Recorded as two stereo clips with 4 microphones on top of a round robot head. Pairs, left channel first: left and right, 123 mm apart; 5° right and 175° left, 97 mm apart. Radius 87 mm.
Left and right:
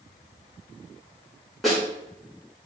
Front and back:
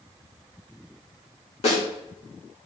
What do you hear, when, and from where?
1.6 s a snare drum: straight ahead, 3.5 m